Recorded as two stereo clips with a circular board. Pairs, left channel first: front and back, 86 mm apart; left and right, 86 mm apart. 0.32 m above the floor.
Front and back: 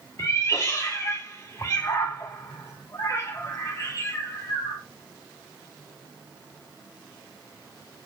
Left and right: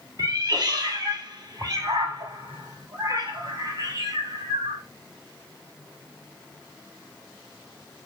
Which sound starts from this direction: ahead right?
A cat meowing, at 0.2 s.